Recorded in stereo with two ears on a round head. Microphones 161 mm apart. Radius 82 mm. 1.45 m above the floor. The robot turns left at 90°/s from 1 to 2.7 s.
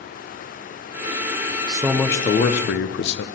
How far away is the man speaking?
About 0.8 m.